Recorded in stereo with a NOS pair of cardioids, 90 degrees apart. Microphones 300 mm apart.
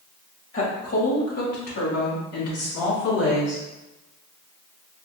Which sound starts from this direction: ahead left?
A woman speaking, at 0.5 s.